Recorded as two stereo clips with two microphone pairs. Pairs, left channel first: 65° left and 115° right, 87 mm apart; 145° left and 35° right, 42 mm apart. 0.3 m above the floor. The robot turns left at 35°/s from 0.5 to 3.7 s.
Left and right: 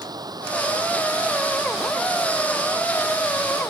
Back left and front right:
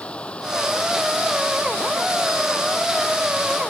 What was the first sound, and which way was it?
Running water, 155° right.